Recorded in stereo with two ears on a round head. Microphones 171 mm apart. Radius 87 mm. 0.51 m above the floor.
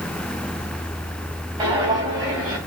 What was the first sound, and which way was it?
Footsteps, 20° right (ahead or behind).